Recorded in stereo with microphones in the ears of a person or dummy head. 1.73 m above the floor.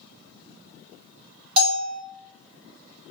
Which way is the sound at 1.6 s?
35° right (ahead or behind).